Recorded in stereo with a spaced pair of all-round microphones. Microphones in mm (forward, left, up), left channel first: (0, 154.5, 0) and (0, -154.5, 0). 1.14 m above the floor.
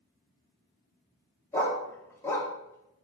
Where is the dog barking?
10° left (ahead or behind), 0.7 m.